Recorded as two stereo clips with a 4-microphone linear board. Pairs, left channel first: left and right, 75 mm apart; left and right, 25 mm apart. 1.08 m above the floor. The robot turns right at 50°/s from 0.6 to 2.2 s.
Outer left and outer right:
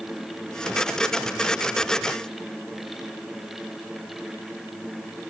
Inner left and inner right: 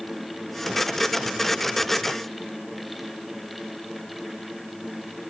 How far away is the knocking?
I don't hear knocking.